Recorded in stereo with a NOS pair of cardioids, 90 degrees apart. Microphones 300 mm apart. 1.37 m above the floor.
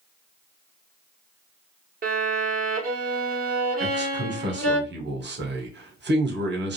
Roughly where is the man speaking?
Ahead right.